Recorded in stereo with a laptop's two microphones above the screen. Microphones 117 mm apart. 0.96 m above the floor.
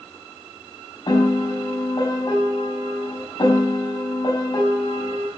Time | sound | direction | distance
1.1 | a piano | 40° left (ahead or behind) | 4.5 m